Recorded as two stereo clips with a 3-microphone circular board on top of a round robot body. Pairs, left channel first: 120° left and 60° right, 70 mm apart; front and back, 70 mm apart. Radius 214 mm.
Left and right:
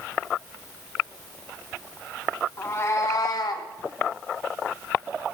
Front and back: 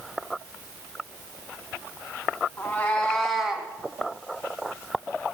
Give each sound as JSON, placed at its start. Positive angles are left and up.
{"t": 2.6, "sound": "a cat meowing", "azimuth_deg": 60, "distance_m": 2.5}